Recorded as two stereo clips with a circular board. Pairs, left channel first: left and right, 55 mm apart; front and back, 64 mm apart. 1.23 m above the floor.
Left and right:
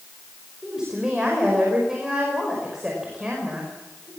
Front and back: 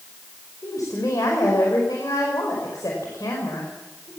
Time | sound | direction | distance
0.6 | a woman speaking | 10° right | 5.5 m